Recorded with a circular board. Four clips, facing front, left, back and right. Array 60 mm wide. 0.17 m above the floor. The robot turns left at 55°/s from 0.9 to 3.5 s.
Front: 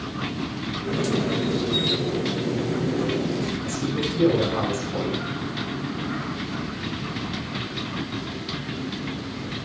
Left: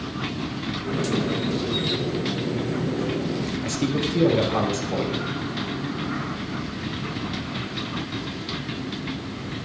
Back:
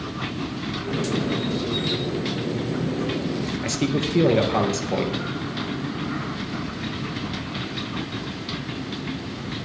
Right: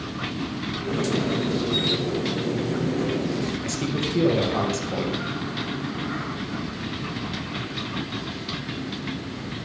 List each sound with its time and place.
3.6 s a man speaking: 175° left, 3.5 m